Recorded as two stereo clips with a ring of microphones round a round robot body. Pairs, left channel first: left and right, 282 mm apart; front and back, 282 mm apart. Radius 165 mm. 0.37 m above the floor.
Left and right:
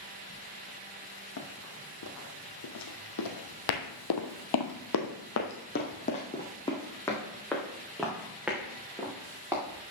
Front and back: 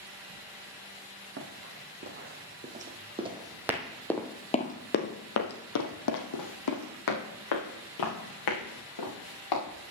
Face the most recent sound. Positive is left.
turn(degrees=-5)